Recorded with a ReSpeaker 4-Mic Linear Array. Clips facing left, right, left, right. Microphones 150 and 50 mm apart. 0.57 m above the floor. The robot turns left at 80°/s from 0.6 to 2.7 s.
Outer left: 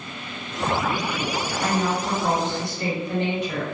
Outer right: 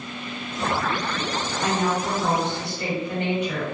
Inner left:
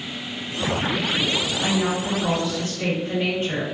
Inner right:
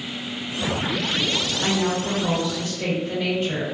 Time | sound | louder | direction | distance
1.6 | a woman speaking | outer right 1 dB, inner right 1 dB | 130° right | 1.9 m